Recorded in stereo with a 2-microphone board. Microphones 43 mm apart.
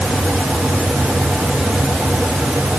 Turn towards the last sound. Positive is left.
No sound to turn to.